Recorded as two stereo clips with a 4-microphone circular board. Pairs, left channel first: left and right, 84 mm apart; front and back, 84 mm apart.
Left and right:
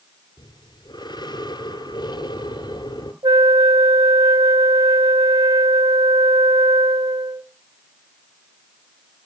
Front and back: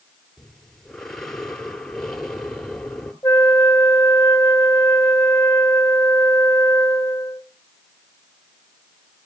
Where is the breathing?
85° left, 2 m.